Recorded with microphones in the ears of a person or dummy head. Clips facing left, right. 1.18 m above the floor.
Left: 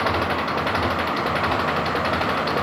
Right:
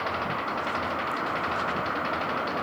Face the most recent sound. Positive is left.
turn(degrees=65)  # may be behind; listen again after turning